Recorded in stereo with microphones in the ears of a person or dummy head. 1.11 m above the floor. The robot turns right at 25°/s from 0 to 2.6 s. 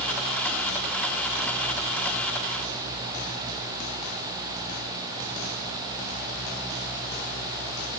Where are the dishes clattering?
No dishes clattering in this recording.